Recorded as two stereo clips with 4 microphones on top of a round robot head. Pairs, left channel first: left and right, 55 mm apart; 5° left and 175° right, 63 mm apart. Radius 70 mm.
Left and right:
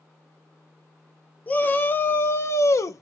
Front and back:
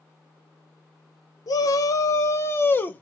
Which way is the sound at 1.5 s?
30° left.